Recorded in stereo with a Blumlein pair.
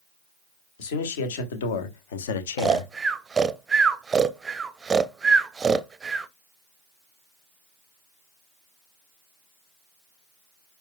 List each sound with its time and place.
0.8 s a man speaking: 55° left, 1.9 m; by 2.9 s 65° left, 0.8 m
2.6 s snoring: 15° right, 0.6 m